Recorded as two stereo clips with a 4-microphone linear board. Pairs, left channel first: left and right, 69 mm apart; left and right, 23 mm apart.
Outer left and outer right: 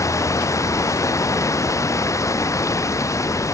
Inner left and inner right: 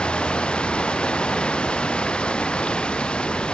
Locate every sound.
0.0 s running water: 50° left (ahead or behind)